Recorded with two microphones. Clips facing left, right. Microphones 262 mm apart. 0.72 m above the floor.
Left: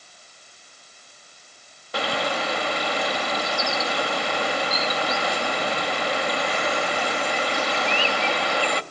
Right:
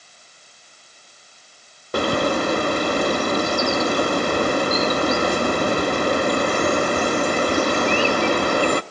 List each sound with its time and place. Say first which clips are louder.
1.9 s a bird: right 7 dB; 50° right (ahead or behind), 0.6 m